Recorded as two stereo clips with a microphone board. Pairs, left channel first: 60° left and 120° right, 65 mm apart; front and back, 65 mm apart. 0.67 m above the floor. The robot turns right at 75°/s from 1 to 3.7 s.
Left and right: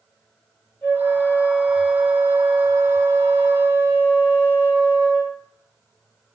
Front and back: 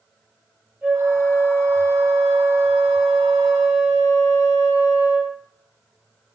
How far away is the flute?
About 1.3 m.